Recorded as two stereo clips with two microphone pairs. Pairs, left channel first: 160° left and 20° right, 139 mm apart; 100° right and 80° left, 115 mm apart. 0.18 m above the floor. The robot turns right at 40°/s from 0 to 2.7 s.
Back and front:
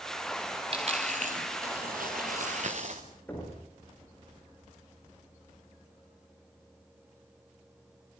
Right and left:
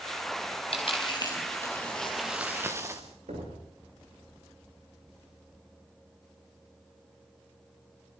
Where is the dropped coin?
65° right, 3.5 m; by 3.0 s 15° left, 3.5 m.